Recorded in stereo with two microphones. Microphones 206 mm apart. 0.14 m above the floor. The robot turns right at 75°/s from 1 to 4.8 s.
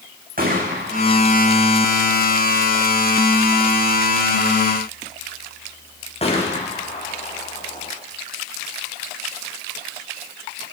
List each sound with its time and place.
0.4 s a gunshot: 45° right (ahead or behind), 7.5 m; by 7.9 s 30° left (ahead or behind), 7.5 m